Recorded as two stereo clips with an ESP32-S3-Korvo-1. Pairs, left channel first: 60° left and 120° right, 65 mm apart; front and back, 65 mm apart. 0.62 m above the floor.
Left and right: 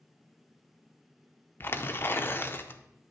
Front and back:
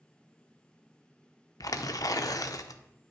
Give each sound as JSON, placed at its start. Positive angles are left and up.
{"t": 1.6, "sound": "tearing paper", "azimuth_deg": 10, "distance_m": 0.5}